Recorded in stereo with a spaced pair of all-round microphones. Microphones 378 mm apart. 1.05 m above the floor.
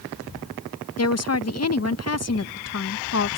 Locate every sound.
1.0 s a woman speaking: 40° left (ahead or behind)